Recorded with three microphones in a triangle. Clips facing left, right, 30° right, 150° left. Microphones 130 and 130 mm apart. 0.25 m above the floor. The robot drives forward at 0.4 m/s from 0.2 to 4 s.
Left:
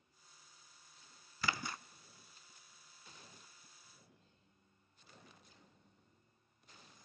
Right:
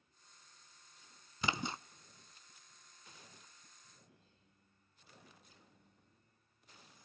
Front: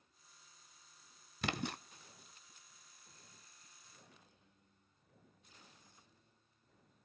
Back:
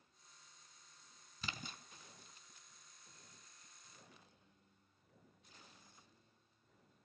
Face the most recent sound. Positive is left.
turn(degrees=-140)